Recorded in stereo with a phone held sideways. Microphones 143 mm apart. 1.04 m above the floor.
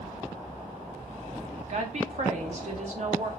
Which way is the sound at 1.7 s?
55° right (ahead or behind).